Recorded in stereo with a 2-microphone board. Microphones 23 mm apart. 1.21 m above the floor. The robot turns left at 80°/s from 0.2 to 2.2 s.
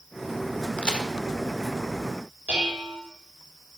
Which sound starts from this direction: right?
Dishes clattering, at 2.5 s.